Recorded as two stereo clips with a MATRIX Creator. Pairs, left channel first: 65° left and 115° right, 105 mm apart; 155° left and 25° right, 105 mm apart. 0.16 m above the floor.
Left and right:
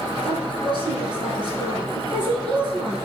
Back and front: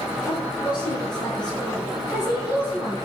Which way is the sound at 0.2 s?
150° right.